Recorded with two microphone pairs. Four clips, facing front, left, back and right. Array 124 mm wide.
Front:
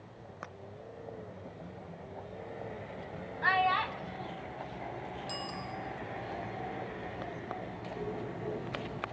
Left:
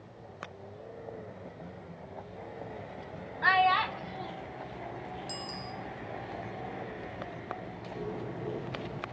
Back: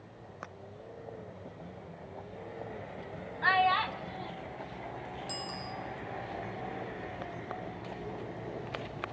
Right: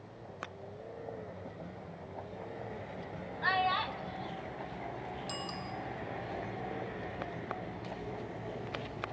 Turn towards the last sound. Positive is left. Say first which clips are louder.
# left 4 dB, front 2 dB
turn(degrees=85)